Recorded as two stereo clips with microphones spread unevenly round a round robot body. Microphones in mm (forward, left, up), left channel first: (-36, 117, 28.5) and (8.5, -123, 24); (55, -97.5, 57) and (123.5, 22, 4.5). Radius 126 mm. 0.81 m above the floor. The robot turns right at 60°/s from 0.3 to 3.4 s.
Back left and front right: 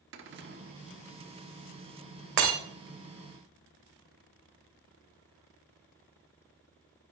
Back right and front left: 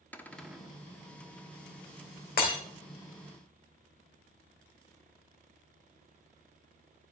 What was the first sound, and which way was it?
A cupboard door, 35° right.